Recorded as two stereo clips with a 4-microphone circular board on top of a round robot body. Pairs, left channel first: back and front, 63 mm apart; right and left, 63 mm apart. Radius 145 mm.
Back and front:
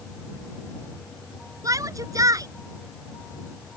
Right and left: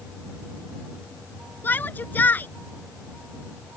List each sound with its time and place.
1.6 s a shout: 30° right